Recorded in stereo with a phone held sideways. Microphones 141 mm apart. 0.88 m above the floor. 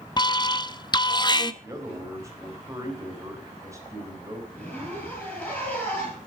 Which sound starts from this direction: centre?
A zipper, at 4.5 s.